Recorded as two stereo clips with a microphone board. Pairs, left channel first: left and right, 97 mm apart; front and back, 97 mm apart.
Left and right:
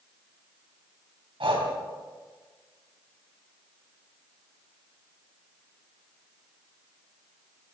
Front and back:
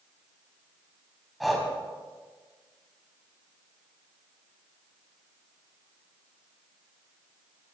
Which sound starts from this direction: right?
Breathing, at 1.4 s.